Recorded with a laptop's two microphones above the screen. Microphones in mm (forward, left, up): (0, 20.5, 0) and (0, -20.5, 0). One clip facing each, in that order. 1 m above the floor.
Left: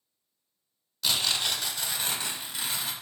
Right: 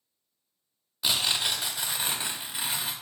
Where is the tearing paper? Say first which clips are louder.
Right 1 dB; 20° right (ahead or behind), 0.7 m.